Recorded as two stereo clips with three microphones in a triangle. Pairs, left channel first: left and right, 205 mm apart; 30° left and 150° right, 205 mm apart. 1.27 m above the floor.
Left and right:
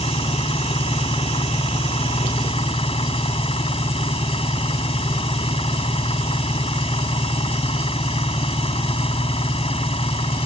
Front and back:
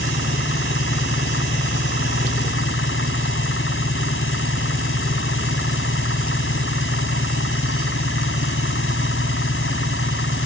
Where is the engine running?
30° left.